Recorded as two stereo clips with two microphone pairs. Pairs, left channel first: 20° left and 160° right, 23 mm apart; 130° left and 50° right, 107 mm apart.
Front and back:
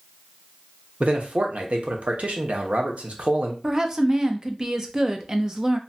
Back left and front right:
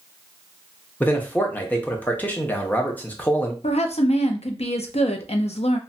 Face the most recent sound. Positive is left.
turn(degrees=140)